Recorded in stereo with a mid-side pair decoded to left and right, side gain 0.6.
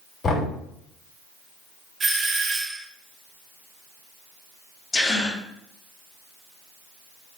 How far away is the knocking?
About 3.5 m.